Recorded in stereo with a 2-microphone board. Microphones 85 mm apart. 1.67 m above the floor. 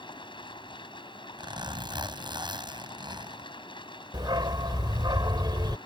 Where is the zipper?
60° right (ahead or behind).